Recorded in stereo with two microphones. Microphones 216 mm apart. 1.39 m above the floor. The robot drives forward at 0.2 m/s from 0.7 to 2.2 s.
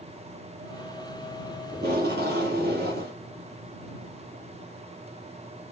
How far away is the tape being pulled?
About 4.5 m.